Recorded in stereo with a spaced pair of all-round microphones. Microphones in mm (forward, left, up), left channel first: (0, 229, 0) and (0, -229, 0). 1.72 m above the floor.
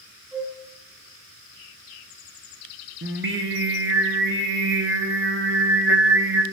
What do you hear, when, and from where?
0.3 s a flute: centre (ahead or behind), 2.5 m
3.0 s singing: 25° right (ahead or behind), 0.9 m